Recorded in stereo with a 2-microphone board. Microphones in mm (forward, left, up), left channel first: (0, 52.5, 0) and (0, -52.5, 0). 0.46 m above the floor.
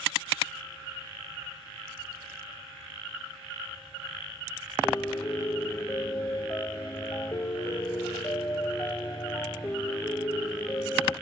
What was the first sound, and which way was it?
A piano, 35° left (ahead or behind).